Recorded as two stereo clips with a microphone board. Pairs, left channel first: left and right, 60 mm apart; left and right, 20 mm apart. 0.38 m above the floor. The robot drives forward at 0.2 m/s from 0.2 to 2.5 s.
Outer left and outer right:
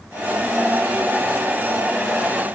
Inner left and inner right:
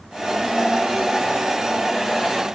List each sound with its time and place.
Only background noise.